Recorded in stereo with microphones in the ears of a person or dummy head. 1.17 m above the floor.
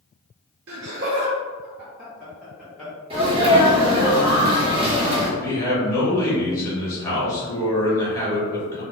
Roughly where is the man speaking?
Centre.